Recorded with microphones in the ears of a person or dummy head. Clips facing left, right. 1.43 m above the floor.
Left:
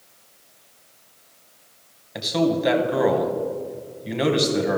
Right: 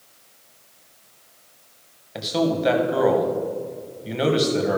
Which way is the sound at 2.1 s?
Centre (ahead or behind).